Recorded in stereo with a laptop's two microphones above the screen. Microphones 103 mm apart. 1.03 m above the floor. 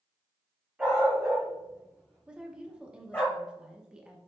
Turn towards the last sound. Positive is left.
turn(degrees=-10)  # may be behind; listen again after turning